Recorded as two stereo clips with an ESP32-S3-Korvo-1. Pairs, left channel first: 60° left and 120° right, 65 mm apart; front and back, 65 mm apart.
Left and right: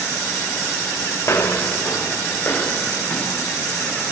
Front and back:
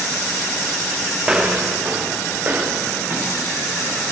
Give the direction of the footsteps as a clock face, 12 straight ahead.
9 o'clock.